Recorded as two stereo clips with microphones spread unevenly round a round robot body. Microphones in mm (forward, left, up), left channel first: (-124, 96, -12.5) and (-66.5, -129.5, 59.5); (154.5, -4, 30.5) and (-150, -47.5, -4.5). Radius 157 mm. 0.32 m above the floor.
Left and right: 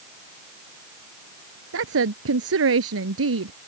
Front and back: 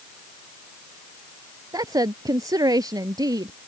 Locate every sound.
1.7 s a woman speaking: 95° right